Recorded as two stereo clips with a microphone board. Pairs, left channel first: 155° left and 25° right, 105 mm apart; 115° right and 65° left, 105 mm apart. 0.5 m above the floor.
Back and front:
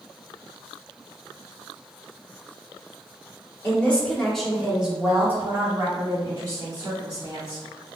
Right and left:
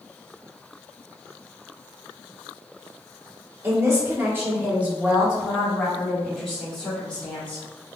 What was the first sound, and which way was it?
A woman speaking, 100° left.